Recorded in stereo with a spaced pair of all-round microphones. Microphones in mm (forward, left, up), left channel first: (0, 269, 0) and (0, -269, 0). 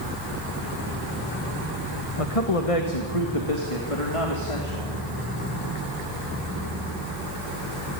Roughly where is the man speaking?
Left.